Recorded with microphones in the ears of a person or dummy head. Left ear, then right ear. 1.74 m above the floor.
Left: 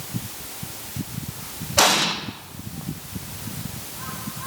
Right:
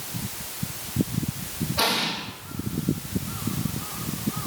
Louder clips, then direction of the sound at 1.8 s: Left 6 dB; 70° left (ahead or behind).